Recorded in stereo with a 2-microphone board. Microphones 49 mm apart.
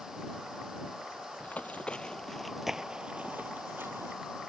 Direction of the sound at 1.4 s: 35° left (ahead or behind).